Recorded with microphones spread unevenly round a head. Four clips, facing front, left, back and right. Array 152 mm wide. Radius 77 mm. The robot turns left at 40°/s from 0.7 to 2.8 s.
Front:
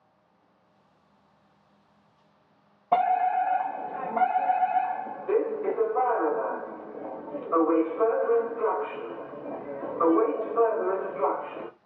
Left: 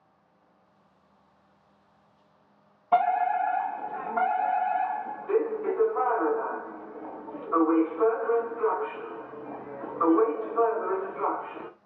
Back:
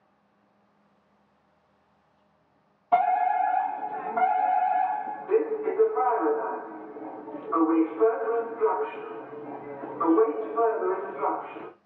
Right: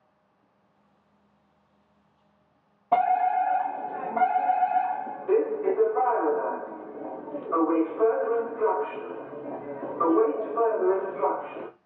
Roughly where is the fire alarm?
Ahead right.